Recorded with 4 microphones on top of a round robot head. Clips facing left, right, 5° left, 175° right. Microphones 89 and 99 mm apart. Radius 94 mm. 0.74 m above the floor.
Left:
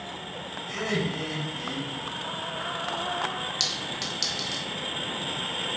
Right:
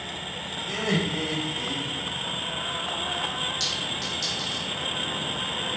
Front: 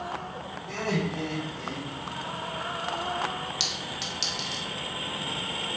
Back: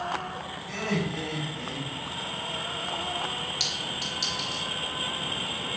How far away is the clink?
About 0.8 m.